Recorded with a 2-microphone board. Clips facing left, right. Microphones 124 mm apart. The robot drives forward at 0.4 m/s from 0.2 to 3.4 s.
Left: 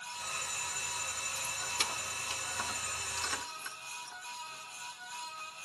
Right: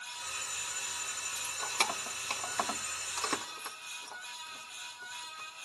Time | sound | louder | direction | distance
1.4 | keys jangling | right 6 dB | 50° right (ahead or behind) | 0.9 m